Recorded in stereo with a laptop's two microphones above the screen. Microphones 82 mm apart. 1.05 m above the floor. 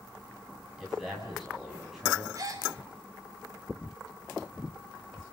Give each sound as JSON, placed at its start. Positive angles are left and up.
{"t": 0.8, "sound": "a man speaking", "side_deg": -5, "distance_m": 7.5}
{"t": 2.4, "sound": "a gasp", "side_deg": -45, "distance_m": 4.0}